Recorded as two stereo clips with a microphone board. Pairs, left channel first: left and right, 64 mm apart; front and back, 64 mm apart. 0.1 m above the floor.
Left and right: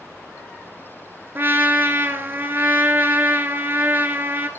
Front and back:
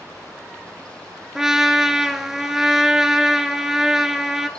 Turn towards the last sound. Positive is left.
turn(degrees=-105)